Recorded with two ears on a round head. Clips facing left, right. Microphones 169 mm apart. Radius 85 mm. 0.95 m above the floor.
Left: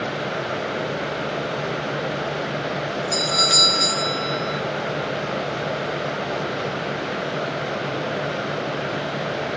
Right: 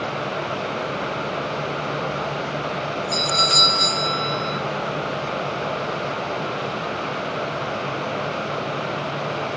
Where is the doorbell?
10° left (ahead or behind), 0.7 m.